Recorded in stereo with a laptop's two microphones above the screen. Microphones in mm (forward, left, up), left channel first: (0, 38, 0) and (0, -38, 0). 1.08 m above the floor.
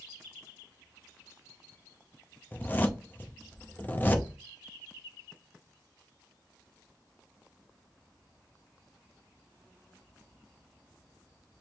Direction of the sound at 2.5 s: 25° left (ahead or behind).